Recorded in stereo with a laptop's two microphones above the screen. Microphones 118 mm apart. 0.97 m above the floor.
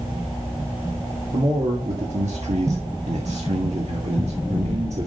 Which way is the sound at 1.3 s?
70° right (ahead or behind).